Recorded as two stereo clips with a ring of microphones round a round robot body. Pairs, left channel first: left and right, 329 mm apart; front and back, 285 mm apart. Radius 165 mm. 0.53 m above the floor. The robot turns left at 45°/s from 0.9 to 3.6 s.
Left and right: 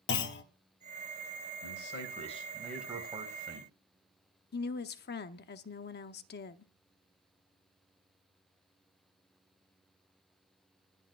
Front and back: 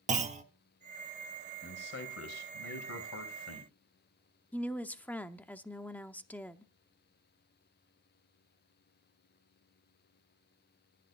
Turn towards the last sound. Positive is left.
turn(degrees=80)